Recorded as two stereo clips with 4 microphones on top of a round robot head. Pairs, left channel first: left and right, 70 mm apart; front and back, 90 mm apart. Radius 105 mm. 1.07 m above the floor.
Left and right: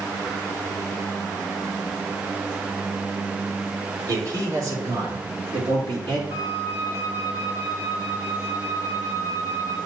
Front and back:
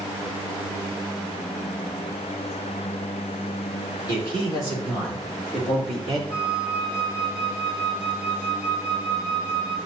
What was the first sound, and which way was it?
A man speaking, 55° right.